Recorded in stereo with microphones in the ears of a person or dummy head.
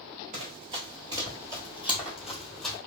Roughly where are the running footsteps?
Right.